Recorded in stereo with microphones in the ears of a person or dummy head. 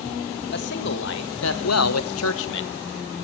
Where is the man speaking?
55° left (ahead or behind), 2.0 m; by 2.7 s 65° left (ahead or behind), 1.2 m.